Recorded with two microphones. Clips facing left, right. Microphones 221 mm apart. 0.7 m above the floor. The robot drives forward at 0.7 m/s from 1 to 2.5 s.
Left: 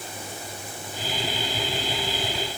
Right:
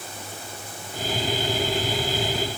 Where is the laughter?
I don't hear laughter.